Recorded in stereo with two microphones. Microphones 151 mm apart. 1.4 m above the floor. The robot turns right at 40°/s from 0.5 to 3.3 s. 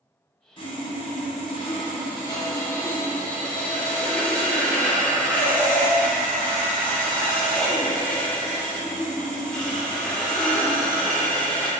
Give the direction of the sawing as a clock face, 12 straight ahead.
10 o'clock.